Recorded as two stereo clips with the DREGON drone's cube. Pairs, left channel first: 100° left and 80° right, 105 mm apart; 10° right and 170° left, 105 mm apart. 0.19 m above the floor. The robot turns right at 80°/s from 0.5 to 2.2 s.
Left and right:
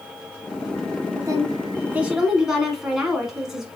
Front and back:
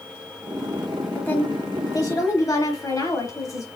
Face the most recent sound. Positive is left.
turn(degrees=5)